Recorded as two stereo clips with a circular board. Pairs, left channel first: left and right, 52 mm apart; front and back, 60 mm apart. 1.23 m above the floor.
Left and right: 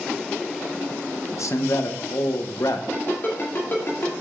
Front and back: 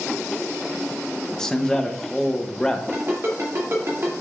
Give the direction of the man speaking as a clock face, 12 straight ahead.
9 o'clock.